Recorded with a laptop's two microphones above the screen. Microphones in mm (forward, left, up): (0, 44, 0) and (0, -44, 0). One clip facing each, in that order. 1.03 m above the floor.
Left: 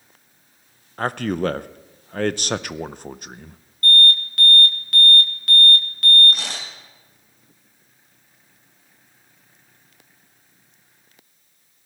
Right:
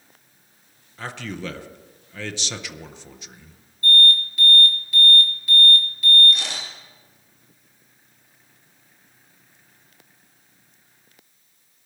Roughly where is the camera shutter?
Left.